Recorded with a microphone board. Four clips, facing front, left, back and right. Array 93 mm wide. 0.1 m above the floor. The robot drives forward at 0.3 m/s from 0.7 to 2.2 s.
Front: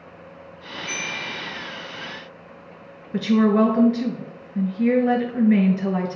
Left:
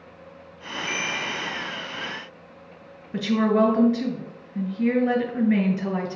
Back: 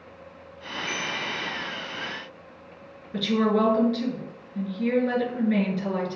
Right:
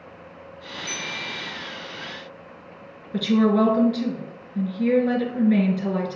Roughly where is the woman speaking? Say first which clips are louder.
Right 2 dB, front 5 dB; ahead left.